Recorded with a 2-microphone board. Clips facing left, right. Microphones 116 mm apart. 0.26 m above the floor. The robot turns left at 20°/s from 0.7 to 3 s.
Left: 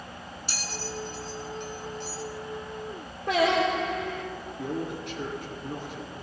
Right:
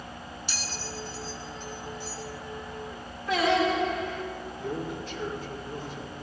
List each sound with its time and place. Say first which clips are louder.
0.5 s a bell: left 4 dB; 40° left (ahead or behind), 2 m; by 2.2 s 65° left (ahead or behind), 2 m
3.3 s singing: left 1 dB; 70° left (ahead or behind), 6.5 m
4.6 s a man speaking: left 2 dB; 75° left (ahead or behind), 7 m